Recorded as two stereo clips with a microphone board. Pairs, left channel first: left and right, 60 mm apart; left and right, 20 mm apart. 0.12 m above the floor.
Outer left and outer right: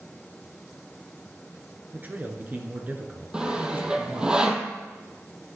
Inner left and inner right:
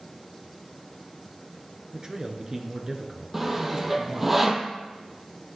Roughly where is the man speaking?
Right.